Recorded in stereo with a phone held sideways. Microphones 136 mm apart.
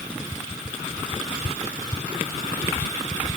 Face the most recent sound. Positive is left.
No sound to turn to.